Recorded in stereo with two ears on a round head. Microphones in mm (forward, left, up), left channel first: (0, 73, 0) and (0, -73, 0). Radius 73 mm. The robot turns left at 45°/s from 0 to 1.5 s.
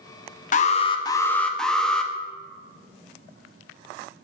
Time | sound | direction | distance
0.5 | an alarm | 50° left | 0.5 m